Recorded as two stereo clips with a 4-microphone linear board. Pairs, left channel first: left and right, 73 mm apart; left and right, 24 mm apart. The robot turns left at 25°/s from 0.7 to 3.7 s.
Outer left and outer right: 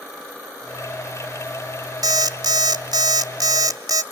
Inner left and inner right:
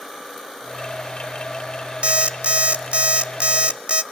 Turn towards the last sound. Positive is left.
turn(degrees=-115)